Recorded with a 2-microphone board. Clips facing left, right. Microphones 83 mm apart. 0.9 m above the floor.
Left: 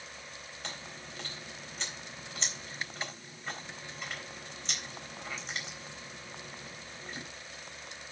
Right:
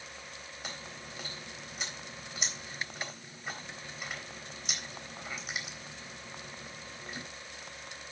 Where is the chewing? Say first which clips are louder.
Even; 10° right (ahead or behind), 3.5 m.